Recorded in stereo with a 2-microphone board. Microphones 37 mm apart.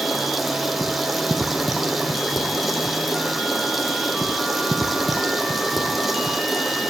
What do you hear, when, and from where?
0.0 s running water: 5° right (ahead or behind), 1.3 m